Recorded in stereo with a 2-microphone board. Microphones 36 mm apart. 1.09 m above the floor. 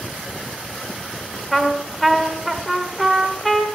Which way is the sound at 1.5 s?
5° left (ahead or behind).